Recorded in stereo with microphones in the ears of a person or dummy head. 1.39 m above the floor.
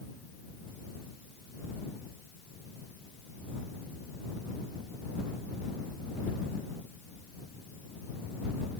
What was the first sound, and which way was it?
Only background noise.